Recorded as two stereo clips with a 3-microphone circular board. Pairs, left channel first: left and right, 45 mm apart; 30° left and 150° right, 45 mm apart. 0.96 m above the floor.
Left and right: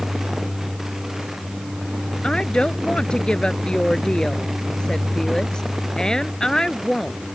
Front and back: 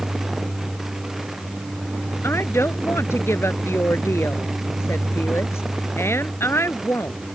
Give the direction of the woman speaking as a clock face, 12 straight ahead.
11 o'clock.